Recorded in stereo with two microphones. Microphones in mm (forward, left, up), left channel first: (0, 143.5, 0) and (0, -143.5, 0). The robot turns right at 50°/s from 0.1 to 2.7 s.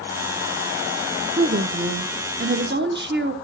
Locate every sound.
1.4 s a woman speaking: 130° right, 1.0 m; by 3.4 s 60° right, 1.0 m